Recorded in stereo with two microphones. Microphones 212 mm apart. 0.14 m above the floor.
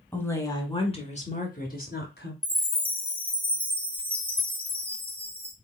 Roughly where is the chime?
Centre.